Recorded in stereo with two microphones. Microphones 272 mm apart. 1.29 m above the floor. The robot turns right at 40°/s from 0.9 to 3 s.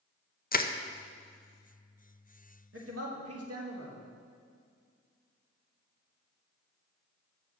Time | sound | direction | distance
0.5 | crushing | 35° left (ahead or behind) | 0.5 m
2.7 | a man speaking | 50° right (ahead or behind) | 1.8 m